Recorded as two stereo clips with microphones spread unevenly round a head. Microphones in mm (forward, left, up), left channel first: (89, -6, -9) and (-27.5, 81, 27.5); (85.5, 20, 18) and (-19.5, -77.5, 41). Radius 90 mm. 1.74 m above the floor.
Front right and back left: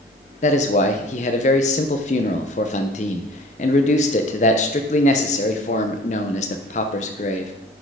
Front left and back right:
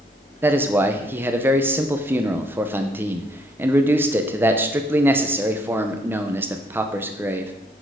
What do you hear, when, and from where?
0.4 s a man speaking: 80° right, 0.8 m